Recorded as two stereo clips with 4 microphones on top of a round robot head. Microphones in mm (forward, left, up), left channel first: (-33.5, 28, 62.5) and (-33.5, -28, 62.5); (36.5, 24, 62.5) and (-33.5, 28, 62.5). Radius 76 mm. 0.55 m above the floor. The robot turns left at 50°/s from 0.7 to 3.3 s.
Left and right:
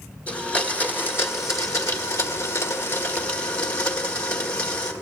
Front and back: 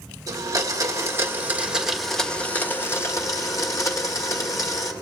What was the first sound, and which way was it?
A blender, 155° left.